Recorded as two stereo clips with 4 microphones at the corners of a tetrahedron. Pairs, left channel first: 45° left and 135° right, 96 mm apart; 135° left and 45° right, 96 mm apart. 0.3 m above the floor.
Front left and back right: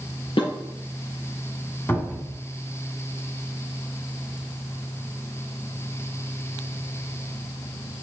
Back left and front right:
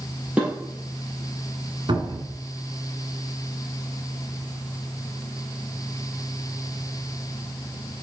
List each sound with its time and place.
0.4 s dishes clattering: 30° left, 4 m
1.9 s a cupboard door: 20° right, 1.6 m